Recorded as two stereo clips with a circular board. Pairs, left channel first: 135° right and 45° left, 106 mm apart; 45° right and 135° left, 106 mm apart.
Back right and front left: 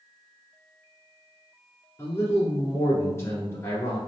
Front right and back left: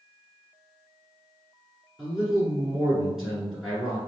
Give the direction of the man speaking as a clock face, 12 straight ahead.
5 o'clock.